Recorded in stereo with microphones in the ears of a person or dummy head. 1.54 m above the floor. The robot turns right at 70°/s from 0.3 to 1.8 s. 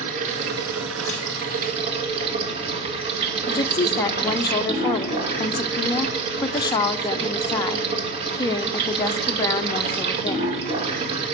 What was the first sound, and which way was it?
Running water, 135° right.